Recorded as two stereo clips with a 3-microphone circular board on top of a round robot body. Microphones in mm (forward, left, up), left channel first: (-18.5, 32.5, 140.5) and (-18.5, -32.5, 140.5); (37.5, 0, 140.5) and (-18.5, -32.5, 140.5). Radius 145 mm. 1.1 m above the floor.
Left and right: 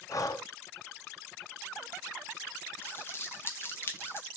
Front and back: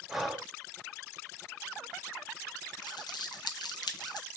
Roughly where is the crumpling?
Ahead left.